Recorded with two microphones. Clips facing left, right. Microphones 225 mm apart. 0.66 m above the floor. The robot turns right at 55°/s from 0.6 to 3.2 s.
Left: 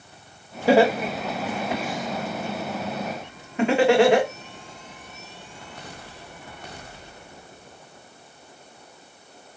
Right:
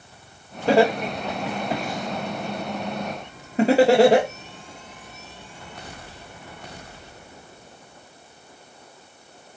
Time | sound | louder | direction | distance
0.7 | laughter | left 1 dB | 10° left (ahead or behind) | 1.3 m